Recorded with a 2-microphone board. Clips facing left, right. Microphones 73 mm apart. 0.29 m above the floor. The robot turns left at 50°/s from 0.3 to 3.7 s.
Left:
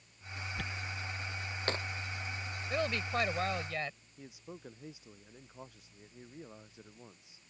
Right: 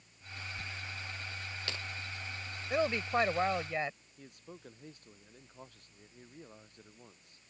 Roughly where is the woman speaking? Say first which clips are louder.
Right 3 dB; centre.